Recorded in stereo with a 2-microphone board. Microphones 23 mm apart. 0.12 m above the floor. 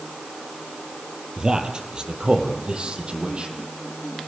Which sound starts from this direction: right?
A man speaking, at 1.4 s.